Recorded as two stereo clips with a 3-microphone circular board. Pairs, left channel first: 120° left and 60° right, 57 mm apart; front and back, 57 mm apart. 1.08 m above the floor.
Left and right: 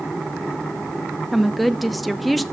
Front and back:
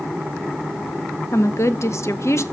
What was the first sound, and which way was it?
A woman speaking, 30° left.